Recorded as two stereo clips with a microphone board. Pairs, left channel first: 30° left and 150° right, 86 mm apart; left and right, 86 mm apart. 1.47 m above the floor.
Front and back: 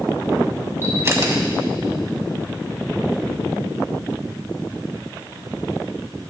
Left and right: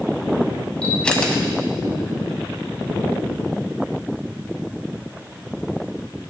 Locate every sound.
0.8 s a camera shutter: 165° left, 2.0 m